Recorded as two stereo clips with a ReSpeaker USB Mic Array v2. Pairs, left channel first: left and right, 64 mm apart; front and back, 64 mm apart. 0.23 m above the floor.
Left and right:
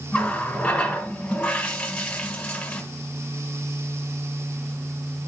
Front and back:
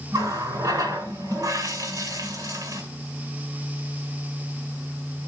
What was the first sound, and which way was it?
A running tap, 165° left.